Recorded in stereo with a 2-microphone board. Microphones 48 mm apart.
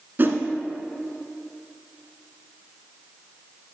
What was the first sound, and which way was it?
A whoosh, 40° right (ahead or behind).